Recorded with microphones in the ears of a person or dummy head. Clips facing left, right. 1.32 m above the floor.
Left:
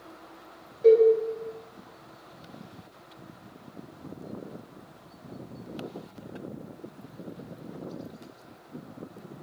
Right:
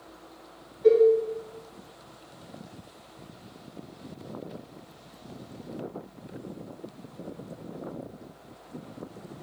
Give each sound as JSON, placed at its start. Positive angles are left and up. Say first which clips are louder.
{"t": 0.8, "sound": "a cowbell", "louder": "left 1 dB", "side_deg": 65, "distance_m": 1.9}